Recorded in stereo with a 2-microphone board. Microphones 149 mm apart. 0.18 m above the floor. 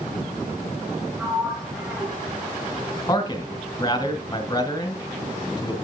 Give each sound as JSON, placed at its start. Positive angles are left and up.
{"t": 1.2, "sound": "a sliding door", "side_deg": -10, "distance_m": 3.5}
{"t": 3.1, "sound": "a man speaking", "side_deg": 30, "distance_m": 1.9}